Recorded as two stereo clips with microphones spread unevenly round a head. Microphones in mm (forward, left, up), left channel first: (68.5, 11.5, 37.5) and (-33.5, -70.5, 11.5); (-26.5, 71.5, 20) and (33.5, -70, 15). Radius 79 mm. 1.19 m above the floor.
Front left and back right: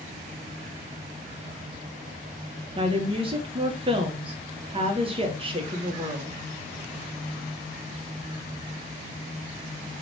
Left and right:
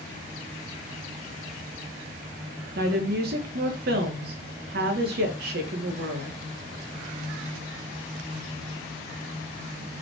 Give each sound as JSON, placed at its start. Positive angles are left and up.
{"t": 2.8, "sound": "a woman speaking", "azimuth_deg": -95, "distance_m": 0.7}